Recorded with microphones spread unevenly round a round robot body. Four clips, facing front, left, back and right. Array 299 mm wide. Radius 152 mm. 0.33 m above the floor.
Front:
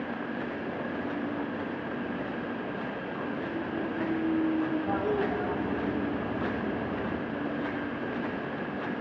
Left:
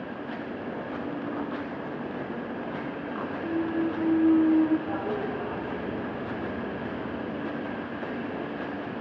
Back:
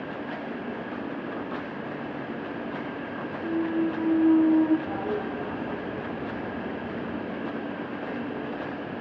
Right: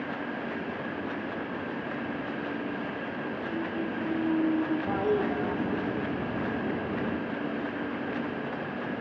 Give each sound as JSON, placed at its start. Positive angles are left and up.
{"t": 3.4, "sound": "a clunk", "azimuth_deg": 180, "distance_m": 1.1}
{"t": 4.9, "sound": "a toilet flushing", "azimuth_deg": -95, "distance_m": 3.0}